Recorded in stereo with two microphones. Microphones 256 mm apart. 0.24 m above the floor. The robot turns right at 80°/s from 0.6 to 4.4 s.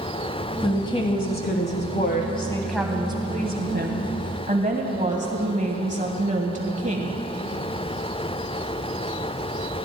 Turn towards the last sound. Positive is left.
turn(degrees=-50)